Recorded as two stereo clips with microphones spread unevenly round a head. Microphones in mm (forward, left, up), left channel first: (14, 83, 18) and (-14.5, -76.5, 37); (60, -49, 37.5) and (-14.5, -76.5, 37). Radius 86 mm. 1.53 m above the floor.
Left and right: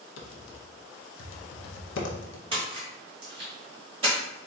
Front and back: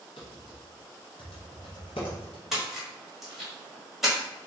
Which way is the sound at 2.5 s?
75° right.